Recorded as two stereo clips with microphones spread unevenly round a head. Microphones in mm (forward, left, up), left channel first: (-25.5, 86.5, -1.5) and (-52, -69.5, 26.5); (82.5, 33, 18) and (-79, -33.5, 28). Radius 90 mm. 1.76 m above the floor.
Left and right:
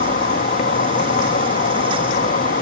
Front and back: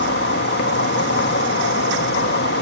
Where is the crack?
I don't hear a crack.